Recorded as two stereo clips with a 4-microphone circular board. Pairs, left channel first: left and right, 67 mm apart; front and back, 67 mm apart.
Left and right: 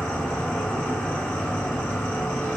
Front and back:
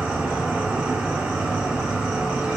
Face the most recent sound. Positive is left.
turn(degrees=125)